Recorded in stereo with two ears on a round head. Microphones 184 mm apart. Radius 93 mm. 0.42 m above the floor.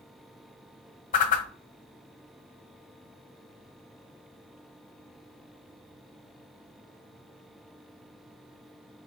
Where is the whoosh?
40° left (ahead or behind), 1.2 m.